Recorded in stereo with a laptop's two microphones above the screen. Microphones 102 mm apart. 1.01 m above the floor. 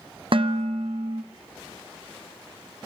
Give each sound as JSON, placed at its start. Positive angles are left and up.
{"t": 0.3, "sound": "dishes clattering", "side_deg": -55, "distance_m": 0.8}